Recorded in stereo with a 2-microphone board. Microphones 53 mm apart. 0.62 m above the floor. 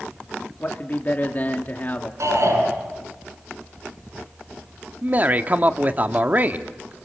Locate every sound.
0.6 s a man speaking: 35° left (ahead or behind), 1.4 m
2.2 s a shout: 70° right (ahead or behind), 9.5 m
5.0 s a man speaking: 35° right (ahead or behind), 1.2 m